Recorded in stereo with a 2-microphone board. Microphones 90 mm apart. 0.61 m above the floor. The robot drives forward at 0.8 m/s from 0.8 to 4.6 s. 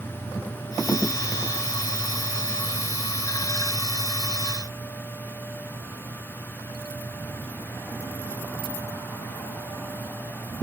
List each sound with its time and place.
Only background noise.